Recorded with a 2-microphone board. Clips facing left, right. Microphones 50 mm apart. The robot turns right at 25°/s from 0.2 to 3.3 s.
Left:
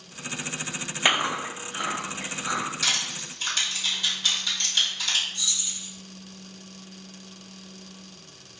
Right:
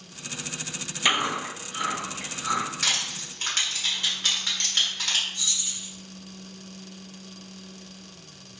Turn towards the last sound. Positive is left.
turn(degrees=-60)  # may be behind; listen again after turning